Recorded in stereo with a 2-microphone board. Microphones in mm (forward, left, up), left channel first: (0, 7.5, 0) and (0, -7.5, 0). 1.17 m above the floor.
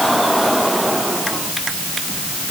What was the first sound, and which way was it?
Only background noise.